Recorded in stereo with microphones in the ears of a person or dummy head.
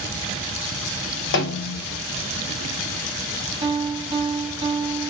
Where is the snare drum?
60° left (ahead or behind), 0.8 m.